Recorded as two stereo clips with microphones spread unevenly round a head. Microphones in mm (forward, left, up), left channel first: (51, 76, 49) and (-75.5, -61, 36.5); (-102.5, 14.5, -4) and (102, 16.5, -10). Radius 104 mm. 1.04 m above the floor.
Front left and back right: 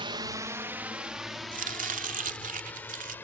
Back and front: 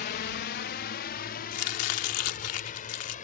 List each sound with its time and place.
0.0 s a drone: straight behind; by 3.2 s 125° left
1.5 s chopping: straight behind